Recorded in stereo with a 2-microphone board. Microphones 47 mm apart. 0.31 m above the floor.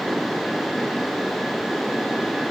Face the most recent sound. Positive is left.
No sound to turn to.